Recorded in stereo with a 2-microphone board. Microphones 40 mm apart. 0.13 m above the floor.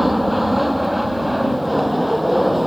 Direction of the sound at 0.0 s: Centre (ahead or behind).